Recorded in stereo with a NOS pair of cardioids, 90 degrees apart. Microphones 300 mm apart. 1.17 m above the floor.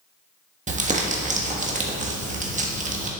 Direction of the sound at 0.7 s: 25° right.